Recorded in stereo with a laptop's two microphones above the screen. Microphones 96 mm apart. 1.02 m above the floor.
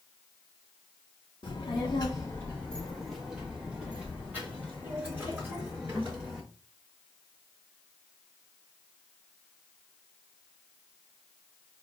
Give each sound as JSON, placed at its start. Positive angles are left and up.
{"t": 1.4, "sound": "a child speaking", "side_deg": 65, "distance_m": 0.6}